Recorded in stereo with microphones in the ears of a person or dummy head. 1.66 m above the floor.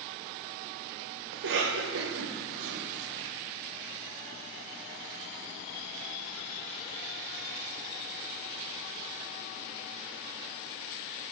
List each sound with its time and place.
1.3 s a cough: 70° right (ahead or behind), 0.7 m